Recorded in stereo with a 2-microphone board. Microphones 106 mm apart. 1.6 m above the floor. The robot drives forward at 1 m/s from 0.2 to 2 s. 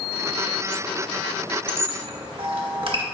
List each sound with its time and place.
1.7 s a squeak: 55° right (ahead or behind), 1.4 m